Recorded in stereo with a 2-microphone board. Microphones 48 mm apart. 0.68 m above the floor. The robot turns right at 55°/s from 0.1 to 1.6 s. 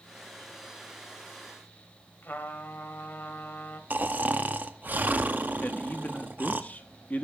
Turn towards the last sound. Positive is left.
turn(degrees=35)  # may be behind; listen again after turning